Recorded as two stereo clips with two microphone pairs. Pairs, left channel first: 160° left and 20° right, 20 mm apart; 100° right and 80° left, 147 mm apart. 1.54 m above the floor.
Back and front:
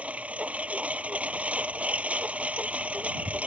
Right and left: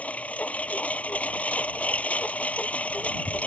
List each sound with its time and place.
0.0 s a lawn mower: 20° right